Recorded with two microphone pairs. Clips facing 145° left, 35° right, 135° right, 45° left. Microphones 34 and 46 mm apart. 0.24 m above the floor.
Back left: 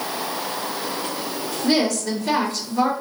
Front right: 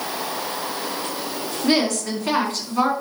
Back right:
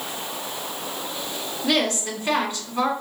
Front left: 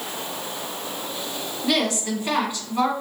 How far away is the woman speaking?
About 2 m.